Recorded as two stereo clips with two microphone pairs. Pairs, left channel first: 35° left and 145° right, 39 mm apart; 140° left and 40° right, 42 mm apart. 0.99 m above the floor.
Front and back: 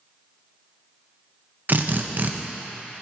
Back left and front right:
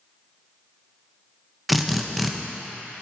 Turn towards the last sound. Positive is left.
turn(degrees=-130)